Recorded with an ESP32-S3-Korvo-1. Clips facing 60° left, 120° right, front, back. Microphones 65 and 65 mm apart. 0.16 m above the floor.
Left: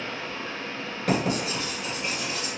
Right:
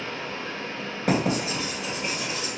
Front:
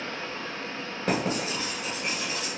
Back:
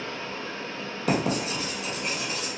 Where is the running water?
30° right, 1.2 m.